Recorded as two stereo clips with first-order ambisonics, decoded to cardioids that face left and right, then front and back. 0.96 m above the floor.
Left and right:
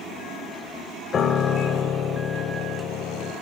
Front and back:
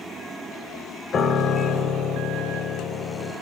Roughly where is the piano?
Ahead left.